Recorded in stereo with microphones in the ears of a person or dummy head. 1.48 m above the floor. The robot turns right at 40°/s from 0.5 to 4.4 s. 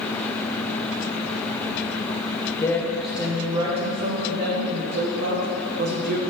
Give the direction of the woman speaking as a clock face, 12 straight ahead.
7 o'clock.